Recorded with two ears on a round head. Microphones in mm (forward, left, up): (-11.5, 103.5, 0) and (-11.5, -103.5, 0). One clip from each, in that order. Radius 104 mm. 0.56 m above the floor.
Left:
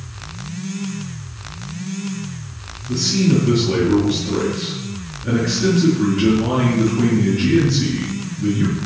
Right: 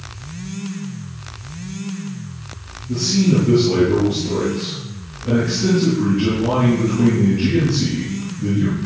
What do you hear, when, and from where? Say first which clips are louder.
2.9 s a man speaking: even; 45° left (ahead or behind), 6 m